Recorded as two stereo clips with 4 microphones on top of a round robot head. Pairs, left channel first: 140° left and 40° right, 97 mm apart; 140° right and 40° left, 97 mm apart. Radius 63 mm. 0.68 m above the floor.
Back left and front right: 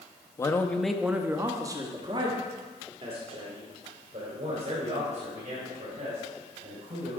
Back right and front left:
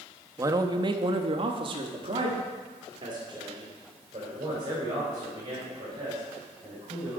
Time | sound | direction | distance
0.4 | a man speaking | 90° left | 0.7 m